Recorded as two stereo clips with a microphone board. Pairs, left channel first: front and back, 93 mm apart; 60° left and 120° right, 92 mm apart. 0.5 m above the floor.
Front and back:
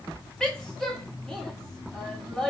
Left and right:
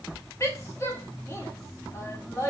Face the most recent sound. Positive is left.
turn(degrees=75)